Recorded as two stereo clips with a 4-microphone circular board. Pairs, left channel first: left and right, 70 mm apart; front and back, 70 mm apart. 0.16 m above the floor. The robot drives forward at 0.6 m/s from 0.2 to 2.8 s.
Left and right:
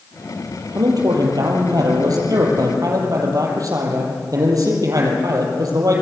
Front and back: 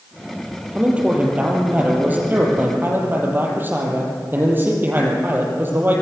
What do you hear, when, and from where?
0.7 s a man speaking: 105° right, 4.5 m; by 6.0 s 120° right, 5 m